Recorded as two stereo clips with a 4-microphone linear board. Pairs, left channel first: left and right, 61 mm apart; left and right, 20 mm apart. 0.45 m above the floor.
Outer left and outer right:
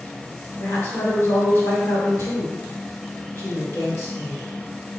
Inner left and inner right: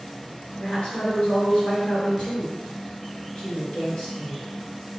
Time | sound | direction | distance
0.6 | a woman speaking | 50° left (ahead or behind) | 2.0 m